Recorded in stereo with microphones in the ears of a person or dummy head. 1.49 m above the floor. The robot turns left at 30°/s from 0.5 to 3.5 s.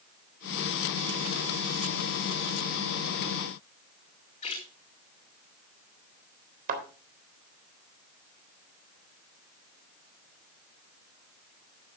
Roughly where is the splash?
Left.